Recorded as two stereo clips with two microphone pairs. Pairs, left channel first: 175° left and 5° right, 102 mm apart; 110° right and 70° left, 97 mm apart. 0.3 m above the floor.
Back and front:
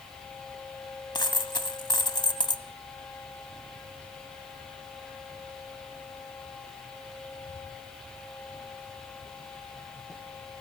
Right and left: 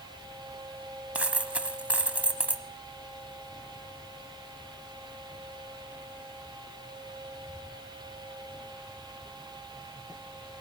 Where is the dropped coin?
145° left, 1.0 m.